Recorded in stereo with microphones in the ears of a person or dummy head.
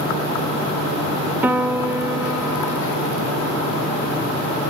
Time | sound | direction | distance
1.4 | a piano | 20° right (ahead or behind) | 0.8 m